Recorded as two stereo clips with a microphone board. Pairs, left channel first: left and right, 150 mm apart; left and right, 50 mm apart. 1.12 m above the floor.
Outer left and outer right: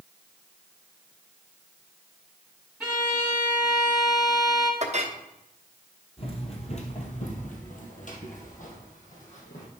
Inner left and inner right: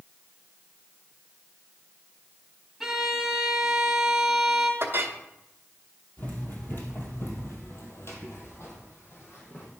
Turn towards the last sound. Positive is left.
turn(degrees=55)  # may be behind; listen again after turning